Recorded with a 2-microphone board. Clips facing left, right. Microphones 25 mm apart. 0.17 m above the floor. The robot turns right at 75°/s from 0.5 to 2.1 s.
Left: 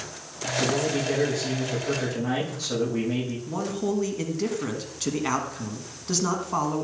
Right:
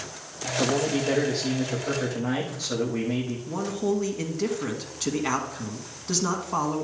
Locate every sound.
0.6 s a man speaking: 110° right, 6.5 m; by 3.4 s 5° left, 6.5 m
3.5 s a man speaking: centre (ahead or behind), 1.7 m